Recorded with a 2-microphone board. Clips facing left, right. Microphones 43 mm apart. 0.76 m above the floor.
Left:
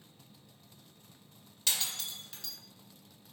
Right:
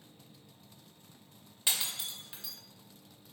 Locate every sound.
1.7 s breaking glass: 20° right (ahead or behind), 0.5 m